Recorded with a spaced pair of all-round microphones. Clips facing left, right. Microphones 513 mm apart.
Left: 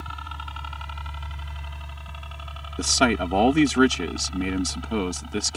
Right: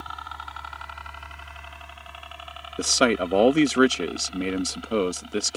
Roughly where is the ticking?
I don't hear ticking.